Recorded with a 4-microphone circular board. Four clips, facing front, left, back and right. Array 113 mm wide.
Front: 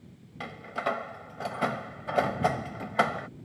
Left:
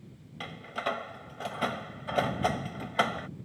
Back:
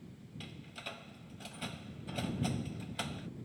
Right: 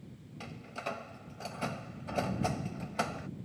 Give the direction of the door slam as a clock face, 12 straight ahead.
11 o'clock.